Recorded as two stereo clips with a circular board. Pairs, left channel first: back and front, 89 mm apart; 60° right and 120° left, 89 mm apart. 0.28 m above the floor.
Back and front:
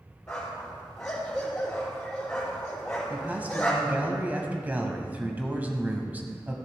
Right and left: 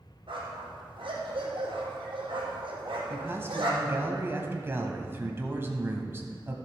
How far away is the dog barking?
About 3 m.